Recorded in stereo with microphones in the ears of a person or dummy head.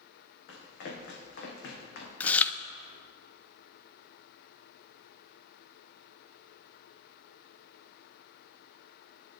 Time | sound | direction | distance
0.5 | running footsteps | 65° left (ahead or behind) | 4.5 m
2.2 | chewing | 10° left (ahead or behind) | 0.6 m